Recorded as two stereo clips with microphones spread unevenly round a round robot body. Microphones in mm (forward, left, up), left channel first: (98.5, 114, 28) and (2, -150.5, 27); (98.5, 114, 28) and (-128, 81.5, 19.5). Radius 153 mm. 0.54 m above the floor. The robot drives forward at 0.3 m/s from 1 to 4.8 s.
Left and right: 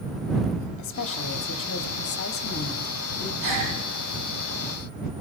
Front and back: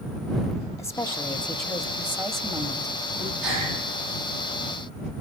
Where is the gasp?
160° right, 9 m.